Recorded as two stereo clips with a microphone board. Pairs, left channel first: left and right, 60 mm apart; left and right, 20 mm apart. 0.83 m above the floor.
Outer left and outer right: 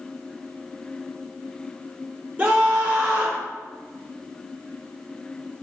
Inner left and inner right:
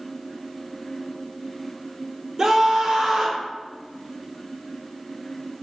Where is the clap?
No clap in this recording.